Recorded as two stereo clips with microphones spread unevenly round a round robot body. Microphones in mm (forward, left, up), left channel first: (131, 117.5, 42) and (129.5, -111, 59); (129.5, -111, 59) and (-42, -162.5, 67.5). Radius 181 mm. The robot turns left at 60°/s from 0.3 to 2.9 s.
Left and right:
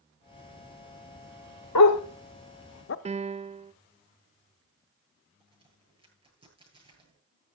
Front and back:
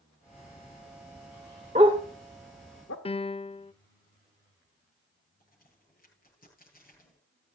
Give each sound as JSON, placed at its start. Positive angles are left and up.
{"t": 1.8, "sound": "a dog barking", "azimuth_deg": 125, "distance_m": 0.8}
{"t": 3.0, "sound": "a piano", "azimuth_deg": -30, "distance_m": 0.5}
{"t": 5.4, "sound": "a crack", "azimuth_deg": -20, "distance_m": 9.5}